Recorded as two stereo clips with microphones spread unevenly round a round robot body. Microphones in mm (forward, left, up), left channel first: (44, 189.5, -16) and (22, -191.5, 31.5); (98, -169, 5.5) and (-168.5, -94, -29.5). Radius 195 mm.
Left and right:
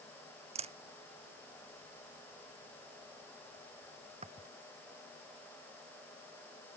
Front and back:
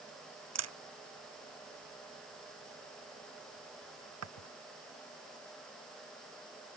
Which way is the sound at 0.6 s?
170° right.